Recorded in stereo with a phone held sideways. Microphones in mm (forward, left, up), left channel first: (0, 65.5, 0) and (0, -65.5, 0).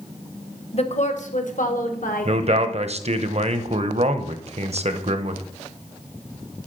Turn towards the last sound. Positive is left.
turn(degrees=-55)  # may be behind; listen again after turning